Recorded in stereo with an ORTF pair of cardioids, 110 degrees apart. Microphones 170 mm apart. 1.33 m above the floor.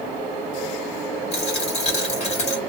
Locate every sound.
1.3 s a dropped coin: 40° left, 2.5 m